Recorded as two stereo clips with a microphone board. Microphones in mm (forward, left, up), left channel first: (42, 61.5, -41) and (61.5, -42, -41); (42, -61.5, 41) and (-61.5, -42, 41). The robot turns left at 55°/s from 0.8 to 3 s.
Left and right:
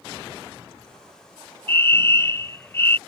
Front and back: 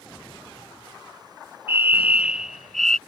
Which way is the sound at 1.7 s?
135° left.